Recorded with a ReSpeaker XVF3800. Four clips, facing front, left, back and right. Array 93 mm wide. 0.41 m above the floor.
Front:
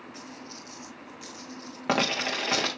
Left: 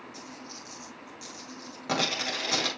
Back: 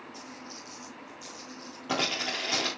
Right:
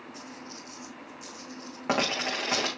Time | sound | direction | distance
0.1 | a dropped coin | 30° right | 4.5 m